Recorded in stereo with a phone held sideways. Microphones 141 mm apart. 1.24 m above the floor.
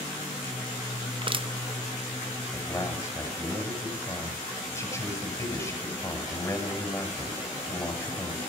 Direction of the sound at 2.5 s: 20° left (ahead or behind).